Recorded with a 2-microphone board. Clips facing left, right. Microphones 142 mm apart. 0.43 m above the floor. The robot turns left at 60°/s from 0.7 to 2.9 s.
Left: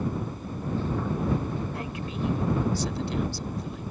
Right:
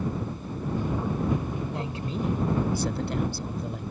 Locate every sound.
1.7 s a woman speaking: 25° right; by 3.8 s 95° right